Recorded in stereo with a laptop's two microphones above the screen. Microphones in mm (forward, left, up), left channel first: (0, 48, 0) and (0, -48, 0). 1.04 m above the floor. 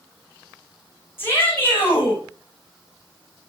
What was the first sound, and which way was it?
A shout, 25° left (ahead or behind).